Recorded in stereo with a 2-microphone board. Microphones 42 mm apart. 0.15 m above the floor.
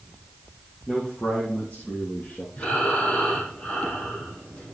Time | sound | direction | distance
0.9 | a man speaking | 25° left (ahead or behind) | 4 m
2.6 | breathing | 30° left (ahead or behind) | 6 m